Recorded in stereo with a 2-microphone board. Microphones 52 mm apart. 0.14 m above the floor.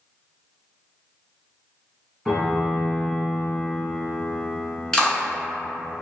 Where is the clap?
15° left (ahead or behind), 1.2 m.